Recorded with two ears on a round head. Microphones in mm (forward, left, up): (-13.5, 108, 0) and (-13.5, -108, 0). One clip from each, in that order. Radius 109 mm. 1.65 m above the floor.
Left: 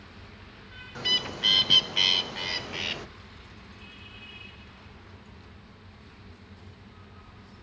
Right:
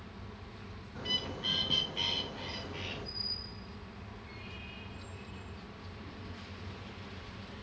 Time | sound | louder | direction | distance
0.9 | a bird | left 8 dB | 65° left (ahead or behind) | 0.7 m